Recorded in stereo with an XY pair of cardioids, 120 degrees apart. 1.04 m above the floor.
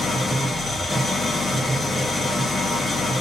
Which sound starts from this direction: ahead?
An engine running, at 0.0 s.